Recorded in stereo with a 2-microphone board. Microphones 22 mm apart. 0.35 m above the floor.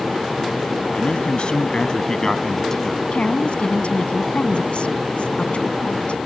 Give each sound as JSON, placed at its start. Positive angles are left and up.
{"t": 0.9, "sound": "a man speaking", "side_deg": 60}
{"t": 3.1, "sound": "a woman speaking", "side_deg": 60}